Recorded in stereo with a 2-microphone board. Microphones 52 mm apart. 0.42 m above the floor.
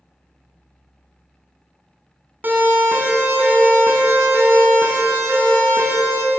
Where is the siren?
40° right (ahead or behind), 4 m; by 6.2 s 65° right (ahead or behind), 5.5 m.